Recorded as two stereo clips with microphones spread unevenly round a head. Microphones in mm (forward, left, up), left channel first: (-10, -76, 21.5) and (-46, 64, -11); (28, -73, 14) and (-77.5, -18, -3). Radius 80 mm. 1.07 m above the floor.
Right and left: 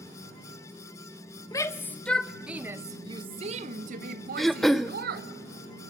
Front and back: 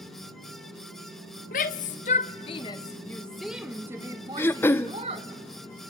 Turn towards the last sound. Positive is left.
turn(degrees=40)